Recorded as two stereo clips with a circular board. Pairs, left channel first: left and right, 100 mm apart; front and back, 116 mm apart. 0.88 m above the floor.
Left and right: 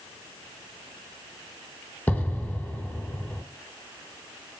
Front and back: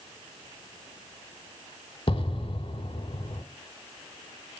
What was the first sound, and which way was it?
An explosion, 25° left.